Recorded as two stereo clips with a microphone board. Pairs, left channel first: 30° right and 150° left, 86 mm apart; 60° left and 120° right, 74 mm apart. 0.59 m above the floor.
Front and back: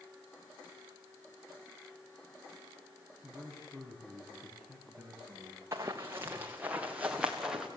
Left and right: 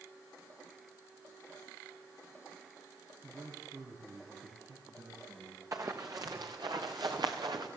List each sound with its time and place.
3.2 s a man speaking: 115° right, 5 m; by 5.6 s 140° right, 5 m
5.7 s running footsteps: 160° right, 2.5 m; by 7.7 s 125° right, 3.5 m